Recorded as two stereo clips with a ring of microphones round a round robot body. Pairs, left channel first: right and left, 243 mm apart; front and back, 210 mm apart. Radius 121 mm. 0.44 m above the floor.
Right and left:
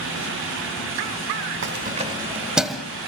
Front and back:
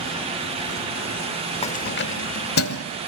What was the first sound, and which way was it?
Keys jangling, 60° left.